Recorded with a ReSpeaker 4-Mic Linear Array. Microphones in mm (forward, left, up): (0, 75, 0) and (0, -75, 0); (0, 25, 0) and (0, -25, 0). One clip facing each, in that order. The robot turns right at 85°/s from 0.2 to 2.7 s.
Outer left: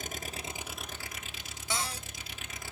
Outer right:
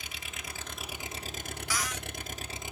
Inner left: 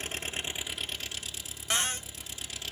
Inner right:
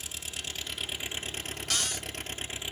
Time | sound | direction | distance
0.0 | an engine running | 130° left | 1.3 m
1.7 | a cupboard door | 40° left | 0.5 m